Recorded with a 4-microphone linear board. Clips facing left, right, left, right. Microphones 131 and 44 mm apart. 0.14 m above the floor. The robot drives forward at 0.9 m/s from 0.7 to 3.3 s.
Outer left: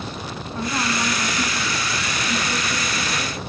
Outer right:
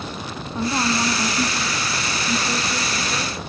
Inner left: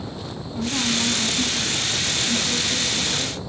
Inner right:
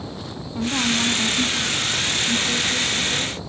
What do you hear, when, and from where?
0.6 s a woman speaking: 15° right (ahead or behind), 1.2 m; by 3.4 s 10° right (ahead or behind), 2.5 m